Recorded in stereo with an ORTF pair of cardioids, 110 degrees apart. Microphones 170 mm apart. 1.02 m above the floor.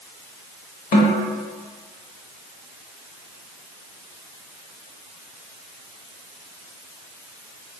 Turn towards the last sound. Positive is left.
turn(degrees=60)